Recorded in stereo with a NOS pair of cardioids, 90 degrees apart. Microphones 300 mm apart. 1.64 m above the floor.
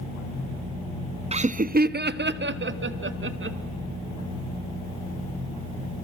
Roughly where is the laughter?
Ahead.